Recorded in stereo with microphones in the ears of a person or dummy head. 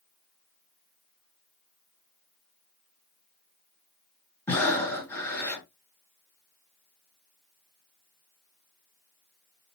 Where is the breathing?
15° left (ahead or behind), 1.8 m.